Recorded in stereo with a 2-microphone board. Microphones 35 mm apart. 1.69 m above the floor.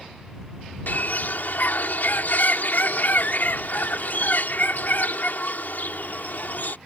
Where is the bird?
65° left (ahead or behind).